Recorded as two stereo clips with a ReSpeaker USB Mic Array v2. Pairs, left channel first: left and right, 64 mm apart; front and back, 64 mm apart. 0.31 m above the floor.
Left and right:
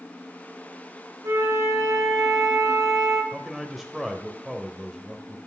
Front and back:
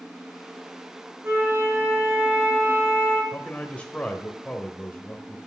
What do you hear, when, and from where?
1.2 s a flute: 130° right, 4.5 m
3.3 s a man speaking: 10° right, 1.0 m